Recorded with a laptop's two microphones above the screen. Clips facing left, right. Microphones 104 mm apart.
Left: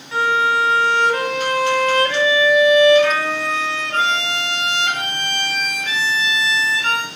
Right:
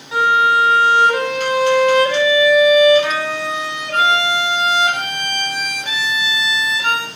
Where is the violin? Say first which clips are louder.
Right 3 dB; 15° right (ahead or behind), 1.6 m.